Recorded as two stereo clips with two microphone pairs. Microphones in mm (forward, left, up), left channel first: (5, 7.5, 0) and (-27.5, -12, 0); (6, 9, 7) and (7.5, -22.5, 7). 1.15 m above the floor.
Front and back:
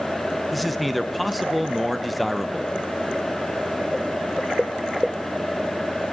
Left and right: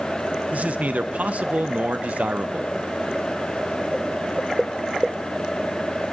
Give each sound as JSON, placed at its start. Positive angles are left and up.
{"t": 0.5, "sound": "a man speaking", "azimuth_deg": -60, "distance_m": 0.8}